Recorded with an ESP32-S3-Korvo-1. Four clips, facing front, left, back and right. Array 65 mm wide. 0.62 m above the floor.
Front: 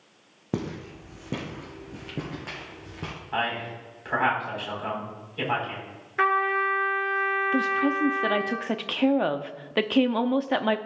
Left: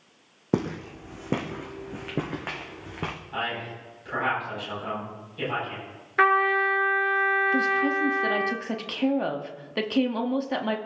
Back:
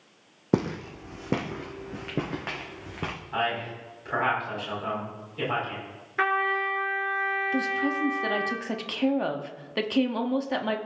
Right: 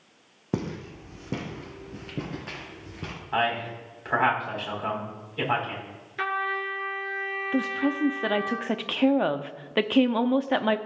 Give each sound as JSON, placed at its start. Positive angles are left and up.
{"t": 0.5, "sound": "footsteps", "azimuth_deg": 145, "distance_m": 1.7}
{"t": 3.3, "sound": "a man speaking", "azimuth_deg": -60, "distance_m": 4.5}
{"t": 6.2, "sound": "a trumpet", "azimuth_deg": 95, "distance_m": 1.7}
{"t": 7.5, "sound": "a woman speaking", "azimuth_deg": -50, "distance_m": 0.6}